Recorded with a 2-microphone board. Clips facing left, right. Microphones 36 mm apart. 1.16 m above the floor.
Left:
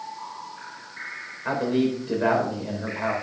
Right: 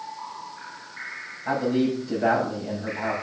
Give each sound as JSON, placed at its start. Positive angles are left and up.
{"t": 1.4, "sound": "a man speaking", "side_deg": 50, "distance_m": 4.5}